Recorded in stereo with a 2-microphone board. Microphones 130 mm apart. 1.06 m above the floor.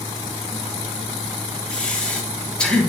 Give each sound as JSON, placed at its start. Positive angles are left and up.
{"t": 1.7, "sound": "breathing", "side_deg": 10, "distance_m": 1.3}